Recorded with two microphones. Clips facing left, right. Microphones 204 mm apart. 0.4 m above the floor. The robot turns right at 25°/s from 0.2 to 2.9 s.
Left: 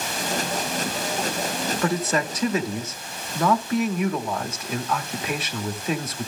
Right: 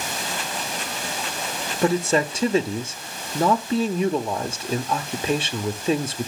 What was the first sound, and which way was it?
A man speaking, 25° right (ahead or behind).